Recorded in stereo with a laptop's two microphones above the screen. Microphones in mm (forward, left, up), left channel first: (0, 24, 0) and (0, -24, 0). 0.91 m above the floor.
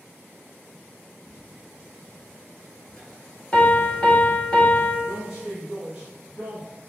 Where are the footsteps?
20° left (ahead or behind), 1.7 m; by 4.0 s centre (ahead or behind), 1.1 m.